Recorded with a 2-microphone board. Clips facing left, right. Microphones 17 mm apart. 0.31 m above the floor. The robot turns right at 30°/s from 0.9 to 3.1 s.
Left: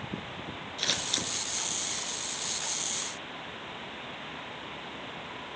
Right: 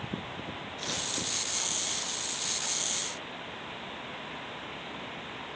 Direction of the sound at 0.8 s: 35° left (ahead or behind).